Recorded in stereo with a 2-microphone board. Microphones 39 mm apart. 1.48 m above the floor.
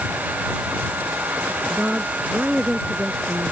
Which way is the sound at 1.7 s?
35° right (ahead or behind).